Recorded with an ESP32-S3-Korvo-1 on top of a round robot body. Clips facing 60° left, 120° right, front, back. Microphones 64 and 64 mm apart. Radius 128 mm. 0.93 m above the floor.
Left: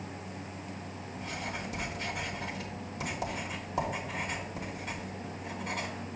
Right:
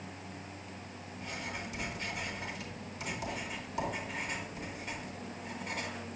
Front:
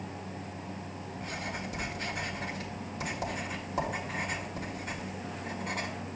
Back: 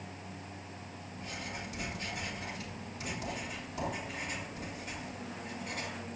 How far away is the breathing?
No breathing in this recording.